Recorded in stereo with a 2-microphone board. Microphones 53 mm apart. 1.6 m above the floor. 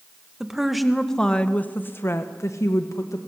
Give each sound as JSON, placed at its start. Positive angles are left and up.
{"t": 0.4, "sound": "a woman speaking", "side_deg": -10, "distance_m": 1.8}